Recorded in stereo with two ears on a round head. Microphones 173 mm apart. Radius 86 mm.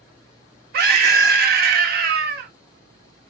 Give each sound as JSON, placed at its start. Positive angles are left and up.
{"t": 0.7, "sound": "a scream", "side_deg": -55, "distance_m": 1.3}